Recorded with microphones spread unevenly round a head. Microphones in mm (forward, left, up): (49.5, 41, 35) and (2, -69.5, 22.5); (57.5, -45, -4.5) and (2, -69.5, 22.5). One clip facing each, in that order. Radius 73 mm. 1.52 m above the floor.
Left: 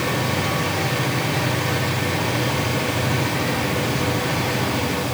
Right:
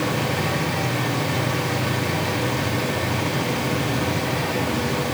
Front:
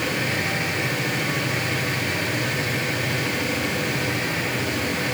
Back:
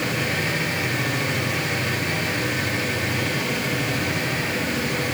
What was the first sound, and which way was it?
Only background noise.